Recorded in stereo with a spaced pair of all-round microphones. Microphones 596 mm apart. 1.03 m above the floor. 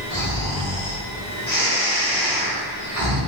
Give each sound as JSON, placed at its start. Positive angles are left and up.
{"t": 0.1, "sound": "snoring", "side_deg": 25, "distance_m": 1.3}